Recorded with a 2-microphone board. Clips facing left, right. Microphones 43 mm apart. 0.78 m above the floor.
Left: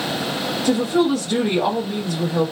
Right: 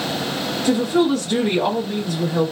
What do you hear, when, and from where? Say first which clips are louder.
0.6 s a woman speaking: right 1 dB; 5° left (ahead or behind), 0.9 m